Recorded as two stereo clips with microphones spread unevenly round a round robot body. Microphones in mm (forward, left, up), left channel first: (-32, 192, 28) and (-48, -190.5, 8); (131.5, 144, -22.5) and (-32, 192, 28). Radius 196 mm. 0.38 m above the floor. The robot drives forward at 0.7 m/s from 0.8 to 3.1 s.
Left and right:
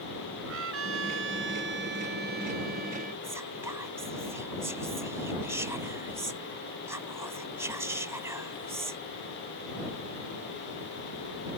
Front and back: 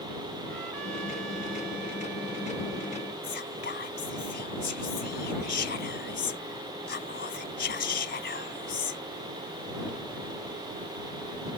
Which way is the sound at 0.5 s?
150° right.